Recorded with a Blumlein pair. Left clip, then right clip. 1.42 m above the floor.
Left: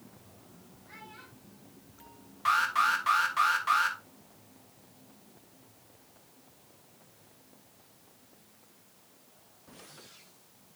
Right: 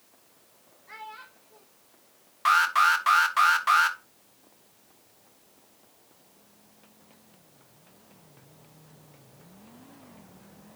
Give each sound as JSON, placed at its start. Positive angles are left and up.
{"t": 0.9, "sound": "a child speaking", "azimuth_deg": -30, "distance_m": 1.5}
{"t": 2.5, "sound": "an alarm", "azimuth_deg": -20, "distance_m": 1.5}